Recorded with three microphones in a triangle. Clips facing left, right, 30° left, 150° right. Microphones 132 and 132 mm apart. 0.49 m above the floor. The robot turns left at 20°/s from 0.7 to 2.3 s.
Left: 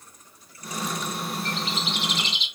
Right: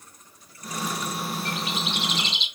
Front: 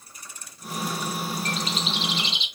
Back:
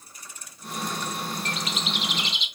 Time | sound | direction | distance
1.4 | a bird | 15° right | 0.8 m